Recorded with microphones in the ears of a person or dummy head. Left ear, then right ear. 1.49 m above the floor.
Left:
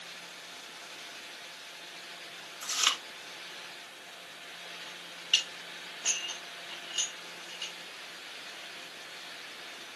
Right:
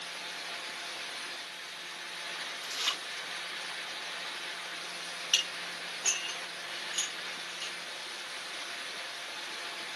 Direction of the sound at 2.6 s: 75° left (ahead or behind).